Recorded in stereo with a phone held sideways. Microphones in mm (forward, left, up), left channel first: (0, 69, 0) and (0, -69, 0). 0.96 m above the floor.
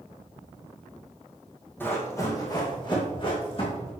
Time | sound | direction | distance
1.8 | running footsteps | 15° left (ahead or behind) | 2.5 m